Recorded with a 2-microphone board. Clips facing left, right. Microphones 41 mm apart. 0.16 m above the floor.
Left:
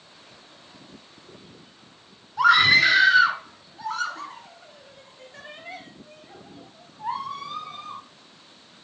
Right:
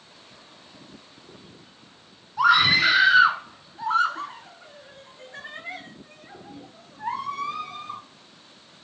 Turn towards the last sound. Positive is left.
turn(degrees=-60)  # may be behind; listen again after turning